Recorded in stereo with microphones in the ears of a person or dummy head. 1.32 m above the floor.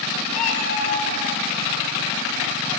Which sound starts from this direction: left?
A cat meowing, at 0.3 s.